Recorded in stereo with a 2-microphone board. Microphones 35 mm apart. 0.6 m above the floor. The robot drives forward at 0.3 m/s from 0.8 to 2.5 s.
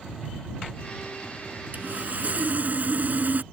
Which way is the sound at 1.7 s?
50° right (ahead or behind).